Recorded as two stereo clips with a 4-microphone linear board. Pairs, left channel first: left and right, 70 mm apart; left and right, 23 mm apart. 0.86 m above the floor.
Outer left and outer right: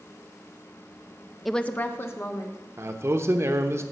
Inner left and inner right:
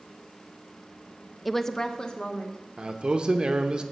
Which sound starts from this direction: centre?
A woman speaking, at 1.4 s.